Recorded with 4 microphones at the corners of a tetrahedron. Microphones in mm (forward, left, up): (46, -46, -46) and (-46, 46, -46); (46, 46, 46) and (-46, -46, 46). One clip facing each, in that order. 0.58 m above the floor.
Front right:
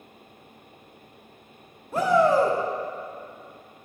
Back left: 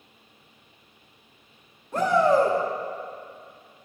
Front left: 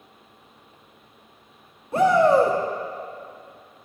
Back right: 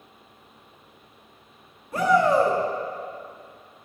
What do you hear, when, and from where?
1.9 s a shout: 30° left, 0.8 m